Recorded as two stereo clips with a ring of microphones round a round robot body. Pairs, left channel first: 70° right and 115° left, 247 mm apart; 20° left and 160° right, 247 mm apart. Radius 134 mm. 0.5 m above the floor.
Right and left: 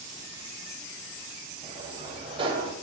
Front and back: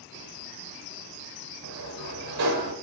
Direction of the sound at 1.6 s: 175° right.